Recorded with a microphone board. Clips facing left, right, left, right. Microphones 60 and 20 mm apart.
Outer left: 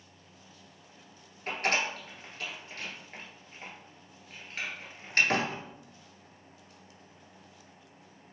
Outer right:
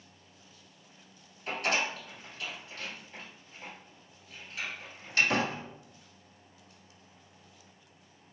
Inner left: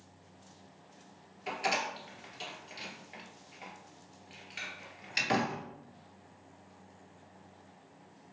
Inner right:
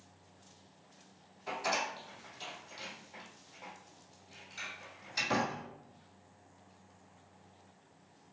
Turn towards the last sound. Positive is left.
turn(degrees=45)  # may be behind; listen again after turning